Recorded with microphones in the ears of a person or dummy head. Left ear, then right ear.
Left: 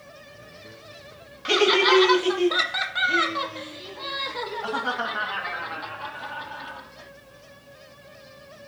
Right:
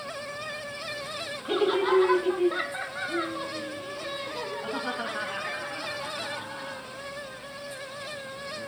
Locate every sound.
1.4 s laughter: 65° left (ahead or behind); by 7.1 s 25° left (ahead or behind)